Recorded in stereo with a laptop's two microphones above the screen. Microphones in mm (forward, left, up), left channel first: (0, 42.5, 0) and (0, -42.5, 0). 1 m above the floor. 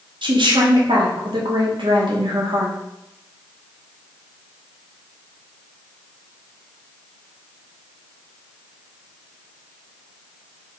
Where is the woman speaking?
70° right (ahead or behind), 2.5 m.